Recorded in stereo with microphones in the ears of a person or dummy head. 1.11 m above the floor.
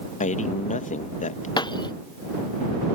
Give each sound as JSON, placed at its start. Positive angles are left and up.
{"t": 0.2, "sound": "a man speaking", "side_deg": 40}
{"t": 1.6, "sound": "breaking glass", "side_deg": 25}